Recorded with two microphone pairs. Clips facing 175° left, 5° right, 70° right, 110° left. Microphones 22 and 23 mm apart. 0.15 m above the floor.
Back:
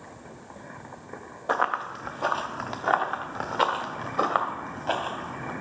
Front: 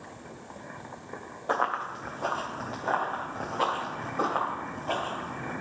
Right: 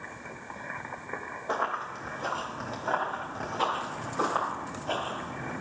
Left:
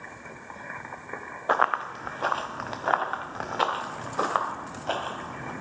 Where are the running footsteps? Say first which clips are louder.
Back 2 dB, left 7 dB; 105° left, 0.7 m; by 5.5 s 155° left, 3 m.